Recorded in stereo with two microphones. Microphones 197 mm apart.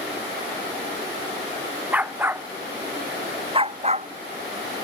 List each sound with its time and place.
1.9 s a dog barking: 10° right (ahead or behind); by 4.1 s 40° right (ahead or behind)